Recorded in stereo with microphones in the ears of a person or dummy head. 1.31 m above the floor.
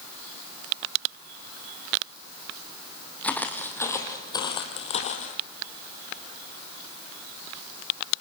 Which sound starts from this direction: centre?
Footsteps, at 3.2 s.